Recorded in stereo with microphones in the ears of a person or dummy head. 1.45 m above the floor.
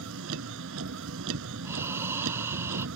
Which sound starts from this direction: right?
A vehicle, at 0.0 s.